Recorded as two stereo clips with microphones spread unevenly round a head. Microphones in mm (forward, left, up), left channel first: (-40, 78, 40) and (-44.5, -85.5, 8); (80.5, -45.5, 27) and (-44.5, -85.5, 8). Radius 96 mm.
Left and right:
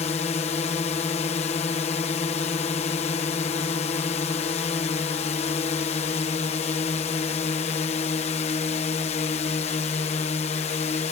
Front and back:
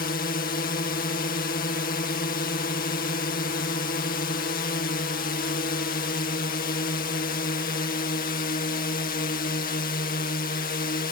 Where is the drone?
30° left.